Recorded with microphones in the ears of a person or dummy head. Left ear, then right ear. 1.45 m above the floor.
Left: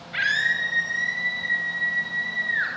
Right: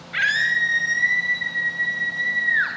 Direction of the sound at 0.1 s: 10° right (ahead or behind).